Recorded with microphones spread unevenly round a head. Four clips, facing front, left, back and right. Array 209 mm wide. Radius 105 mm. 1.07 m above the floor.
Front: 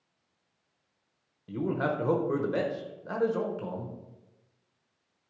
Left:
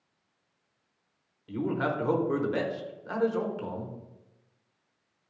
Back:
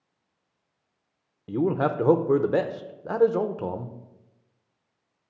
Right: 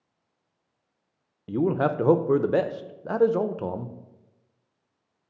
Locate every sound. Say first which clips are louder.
1.5 s a man speaking: right 6 dB, back 6 dB; 130° right, 0.6 m